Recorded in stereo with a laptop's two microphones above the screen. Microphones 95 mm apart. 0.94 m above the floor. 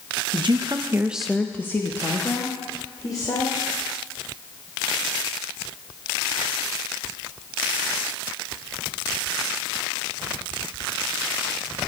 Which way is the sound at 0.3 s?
60° right (ahead or behind).